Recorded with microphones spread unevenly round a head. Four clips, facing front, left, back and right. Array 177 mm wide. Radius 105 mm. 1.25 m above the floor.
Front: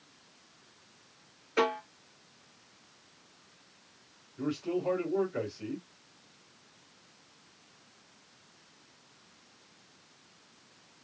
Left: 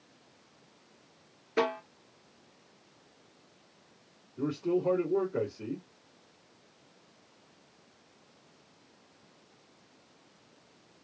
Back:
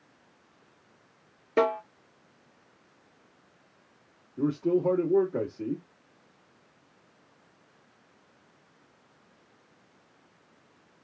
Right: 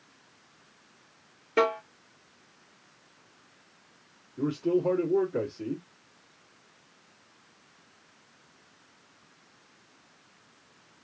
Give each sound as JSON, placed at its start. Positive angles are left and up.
{"t": 1.6, "sound": "a snare drum", "azimuth_deg": -175, "distance_m": 1.7}
{"t": 4.4, "sound": "a man speaking", "azimuth_deg": 180, "distance_m": 1.8}